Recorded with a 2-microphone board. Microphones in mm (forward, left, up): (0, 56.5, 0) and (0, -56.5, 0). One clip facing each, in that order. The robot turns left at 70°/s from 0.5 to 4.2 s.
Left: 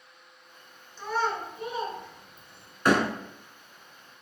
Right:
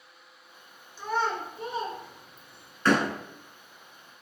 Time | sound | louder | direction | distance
1.0 | a child speaking | even | 10° right (ahead or behind) | 1.1 m
2.9 | a door slam | left 1 dB | 15° left (ahead or behind) | 0.9 m